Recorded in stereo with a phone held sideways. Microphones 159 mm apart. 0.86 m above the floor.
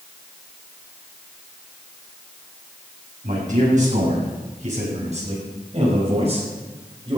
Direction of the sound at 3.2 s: 50° right (ahead or behind).